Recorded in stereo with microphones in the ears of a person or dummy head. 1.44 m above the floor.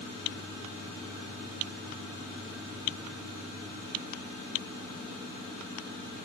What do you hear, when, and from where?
Only background noise.